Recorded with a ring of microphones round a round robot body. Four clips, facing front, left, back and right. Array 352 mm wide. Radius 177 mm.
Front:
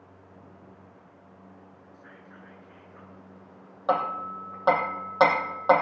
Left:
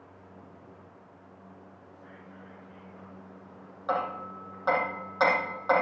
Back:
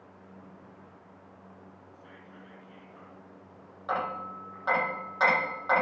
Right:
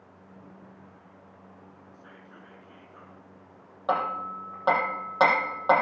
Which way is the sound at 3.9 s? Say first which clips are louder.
Right 3 dB, front 6 dB; 25° right.